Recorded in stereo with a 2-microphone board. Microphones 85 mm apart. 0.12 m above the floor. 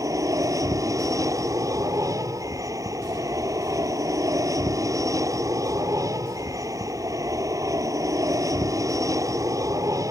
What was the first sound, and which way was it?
An aircraft, 40° right (ahead or behind).